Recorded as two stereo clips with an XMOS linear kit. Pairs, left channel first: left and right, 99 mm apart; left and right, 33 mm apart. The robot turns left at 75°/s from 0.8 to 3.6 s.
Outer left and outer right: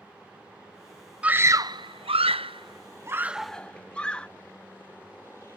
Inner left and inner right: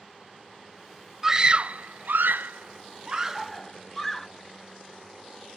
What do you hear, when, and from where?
1.2 s a scream: 15° right (ahead or behind); by 4.3 s 10° left (ahead or behind)